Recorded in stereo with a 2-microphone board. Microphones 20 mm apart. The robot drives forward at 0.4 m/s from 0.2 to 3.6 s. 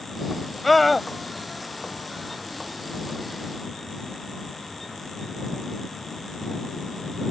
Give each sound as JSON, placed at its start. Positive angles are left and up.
{"t": 0.6, "sound": "a scream", "side_deg": 5}